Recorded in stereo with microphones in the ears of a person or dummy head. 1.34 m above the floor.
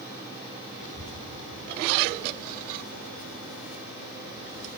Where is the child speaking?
40° left (ahead or behind), 1.2 m; by 4.7 s 10° right (ahead or behind), 5.5 m.